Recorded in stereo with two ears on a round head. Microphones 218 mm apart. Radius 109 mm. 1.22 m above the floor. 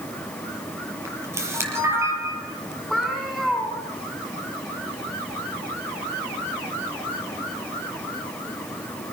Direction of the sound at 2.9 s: Centre (ahead or behind).